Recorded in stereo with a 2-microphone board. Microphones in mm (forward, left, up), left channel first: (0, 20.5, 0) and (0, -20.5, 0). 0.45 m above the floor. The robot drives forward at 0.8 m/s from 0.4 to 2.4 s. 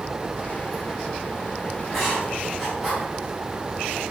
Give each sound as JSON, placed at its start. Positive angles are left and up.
{"t": 1.8, "sound": "writing", "side_deg": 10, "distance_m": 3.5}